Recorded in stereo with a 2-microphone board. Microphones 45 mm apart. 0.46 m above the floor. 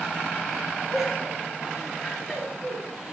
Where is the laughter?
10° right (ahead or behind), 5.5 m; by 3.1 s 5° right (ahead or behind), 6.5 m.